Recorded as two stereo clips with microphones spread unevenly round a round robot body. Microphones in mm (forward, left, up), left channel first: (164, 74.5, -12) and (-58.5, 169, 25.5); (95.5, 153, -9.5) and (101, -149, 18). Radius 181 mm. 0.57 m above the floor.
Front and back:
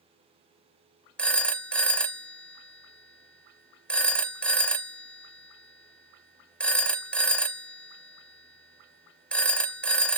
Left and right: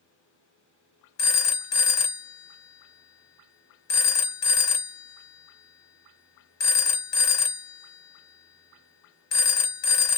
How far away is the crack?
No crack in this recording.